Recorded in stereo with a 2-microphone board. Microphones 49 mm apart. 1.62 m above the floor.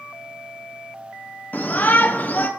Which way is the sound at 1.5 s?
45° left (ahead or behind).